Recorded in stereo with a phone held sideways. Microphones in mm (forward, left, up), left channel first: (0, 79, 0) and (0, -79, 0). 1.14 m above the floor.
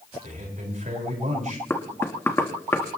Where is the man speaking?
55° right (ahead or behind), 5 m.